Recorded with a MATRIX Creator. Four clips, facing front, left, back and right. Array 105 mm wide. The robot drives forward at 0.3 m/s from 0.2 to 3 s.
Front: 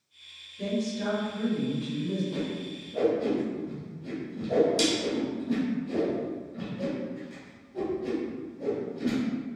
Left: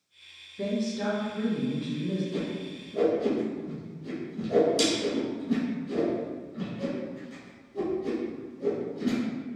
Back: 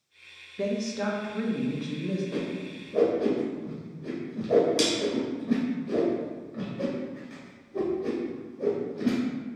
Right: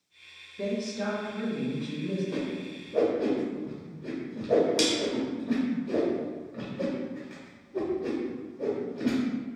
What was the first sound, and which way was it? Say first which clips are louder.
A woman speaking: left 2 dB, back 1 dB; straight behind.